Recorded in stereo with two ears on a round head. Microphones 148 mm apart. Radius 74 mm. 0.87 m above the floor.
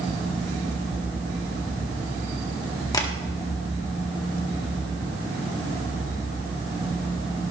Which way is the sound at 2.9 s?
25° left (ahead or behind).